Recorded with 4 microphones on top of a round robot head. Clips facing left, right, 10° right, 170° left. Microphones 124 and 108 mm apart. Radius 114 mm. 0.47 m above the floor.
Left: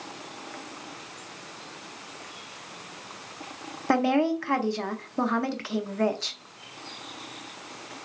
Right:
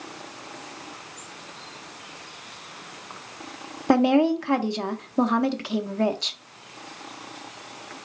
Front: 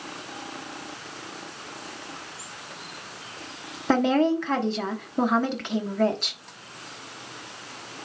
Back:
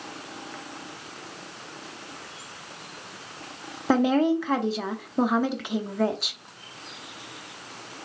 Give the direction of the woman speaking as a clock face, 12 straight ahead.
4 o'clock.